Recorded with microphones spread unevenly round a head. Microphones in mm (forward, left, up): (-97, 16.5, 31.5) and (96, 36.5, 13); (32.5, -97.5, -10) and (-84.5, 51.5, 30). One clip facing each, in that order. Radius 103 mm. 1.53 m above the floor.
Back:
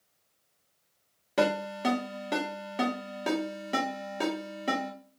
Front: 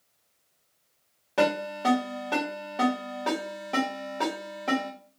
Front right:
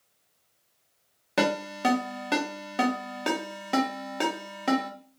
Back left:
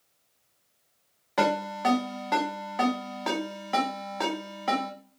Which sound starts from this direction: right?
A ringtone, at 1.4 s.